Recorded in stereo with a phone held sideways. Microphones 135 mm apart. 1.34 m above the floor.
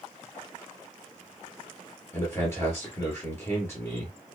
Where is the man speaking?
20° left (ahead or behind), 1.1 m.